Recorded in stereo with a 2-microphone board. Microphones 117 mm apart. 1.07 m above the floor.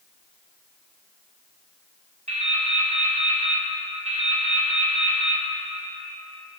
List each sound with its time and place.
2.3 s dripping: 75° right (ahead or behind), 1.7 m